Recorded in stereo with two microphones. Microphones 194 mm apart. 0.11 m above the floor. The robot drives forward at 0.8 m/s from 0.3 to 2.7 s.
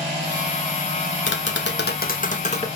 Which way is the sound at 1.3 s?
80° left.